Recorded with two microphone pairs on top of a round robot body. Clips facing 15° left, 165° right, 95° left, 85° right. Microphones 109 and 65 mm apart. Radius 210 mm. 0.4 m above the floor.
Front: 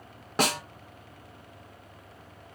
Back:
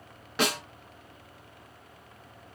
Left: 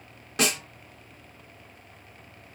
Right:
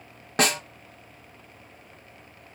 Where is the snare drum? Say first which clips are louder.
Front 2 dB, right 3 dB; 35° right, 1.2 m.